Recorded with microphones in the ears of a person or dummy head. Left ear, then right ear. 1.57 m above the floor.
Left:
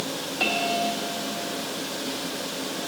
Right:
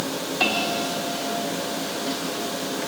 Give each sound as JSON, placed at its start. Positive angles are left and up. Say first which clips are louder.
{"t": 0.4, "sound": "a bell", "louder": "right 1 dB", "side_deg": -15, "distance_m": 3.5}